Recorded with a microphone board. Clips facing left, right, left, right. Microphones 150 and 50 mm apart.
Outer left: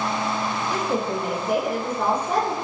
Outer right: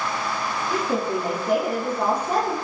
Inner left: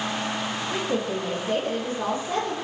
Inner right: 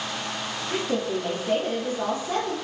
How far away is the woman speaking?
About 2.5 m.